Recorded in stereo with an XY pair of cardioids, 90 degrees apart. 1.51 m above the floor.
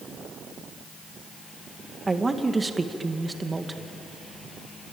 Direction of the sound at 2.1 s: 25° right.